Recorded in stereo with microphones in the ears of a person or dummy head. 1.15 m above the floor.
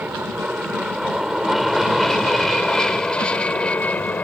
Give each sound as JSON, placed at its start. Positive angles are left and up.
{"t": 0.0, "sound": "an aircraft", "side_deg": -5}